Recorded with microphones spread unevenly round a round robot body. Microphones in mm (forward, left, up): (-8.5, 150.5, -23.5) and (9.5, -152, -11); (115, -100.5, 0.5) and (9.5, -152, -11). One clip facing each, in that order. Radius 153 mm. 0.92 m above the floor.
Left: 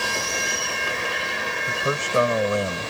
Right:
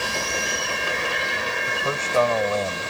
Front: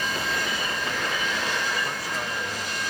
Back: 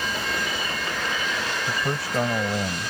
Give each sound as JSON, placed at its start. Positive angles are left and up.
{"t": 1.7, "sound": "a man speaking", "azimuth_deg": 165}